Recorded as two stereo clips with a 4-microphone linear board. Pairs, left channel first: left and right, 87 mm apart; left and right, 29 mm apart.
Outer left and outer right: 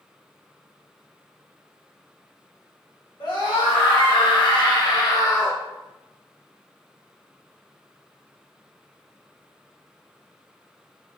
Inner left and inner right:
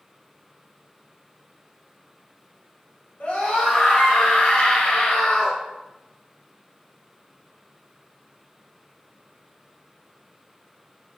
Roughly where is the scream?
Left.